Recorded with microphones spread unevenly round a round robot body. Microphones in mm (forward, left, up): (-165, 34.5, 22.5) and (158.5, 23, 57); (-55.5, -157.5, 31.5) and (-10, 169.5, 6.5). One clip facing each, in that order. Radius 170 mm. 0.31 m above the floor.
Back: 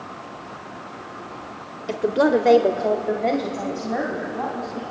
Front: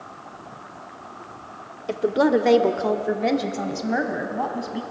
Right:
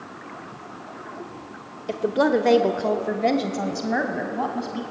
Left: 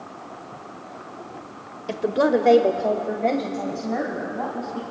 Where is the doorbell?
No doorbell in this recording.